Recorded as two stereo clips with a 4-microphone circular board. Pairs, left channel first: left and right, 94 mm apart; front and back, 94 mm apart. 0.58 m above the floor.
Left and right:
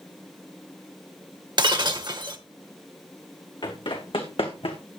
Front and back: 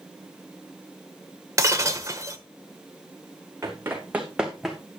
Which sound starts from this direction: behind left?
Running footsteps, at 3.6 s.